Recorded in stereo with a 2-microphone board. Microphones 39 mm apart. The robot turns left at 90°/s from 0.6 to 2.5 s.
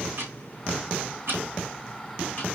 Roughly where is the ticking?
Right.